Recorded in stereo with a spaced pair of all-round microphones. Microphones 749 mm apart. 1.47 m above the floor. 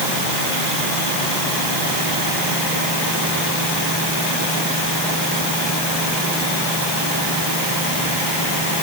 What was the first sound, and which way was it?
Only background noise.